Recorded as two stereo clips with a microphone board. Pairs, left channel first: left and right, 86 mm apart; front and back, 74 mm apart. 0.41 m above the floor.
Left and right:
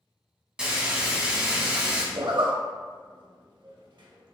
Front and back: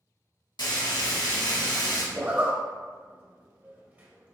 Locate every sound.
0.6 s frying: 10° right, 1.0 m
2.1 s a zipper: 110° right, 0.6 m